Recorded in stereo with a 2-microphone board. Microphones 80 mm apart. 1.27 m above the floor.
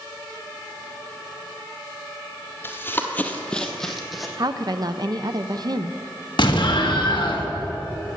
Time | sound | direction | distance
2.6 | running footsteps | 25° left (ahead or behind) | 1.5 m
4.4 | a woman speaking | 50° right (ahead or behind) | 0.6 m
6.4 | an explosion | 70° left (ahead or behind) | 1.5 m